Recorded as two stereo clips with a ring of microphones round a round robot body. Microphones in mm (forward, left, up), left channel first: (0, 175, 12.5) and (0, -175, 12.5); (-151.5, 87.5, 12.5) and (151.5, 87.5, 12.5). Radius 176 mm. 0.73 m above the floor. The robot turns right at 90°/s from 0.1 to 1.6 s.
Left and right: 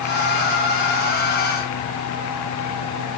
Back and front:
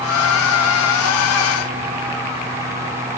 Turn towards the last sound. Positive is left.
No sound to turn to.